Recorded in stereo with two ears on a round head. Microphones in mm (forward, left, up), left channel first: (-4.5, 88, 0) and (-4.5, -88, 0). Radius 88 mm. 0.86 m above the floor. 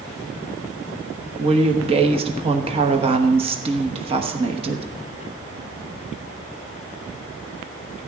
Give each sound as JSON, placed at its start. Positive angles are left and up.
{"t": 1.4, "sound": "a woman speaking", "side_deg": -30, "distance_m": 1.1}